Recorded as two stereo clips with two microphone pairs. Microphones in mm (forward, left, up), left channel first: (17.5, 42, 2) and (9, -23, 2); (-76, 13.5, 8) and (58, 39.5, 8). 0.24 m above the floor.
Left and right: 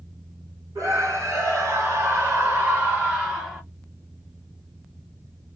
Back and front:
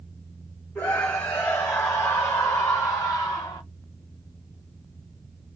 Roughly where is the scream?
Right.